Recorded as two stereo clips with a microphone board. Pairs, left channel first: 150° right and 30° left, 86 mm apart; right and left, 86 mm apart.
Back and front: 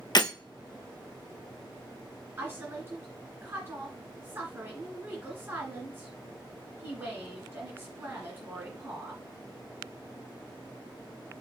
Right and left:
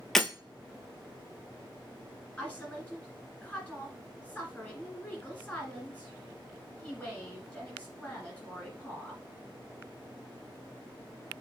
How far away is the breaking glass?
About 1.1 m.